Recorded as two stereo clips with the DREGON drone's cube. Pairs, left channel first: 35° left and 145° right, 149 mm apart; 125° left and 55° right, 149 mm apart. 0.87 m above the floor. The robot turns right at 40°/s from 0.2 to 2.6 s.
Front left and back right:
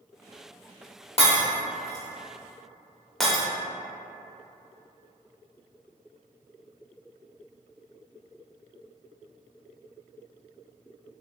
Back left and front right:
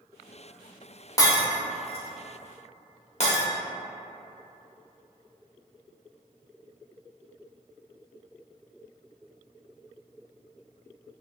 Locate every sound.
1.2 s breaking glass: 65° left, 0.7 m; by 3.4 s 125° left, 0.7 m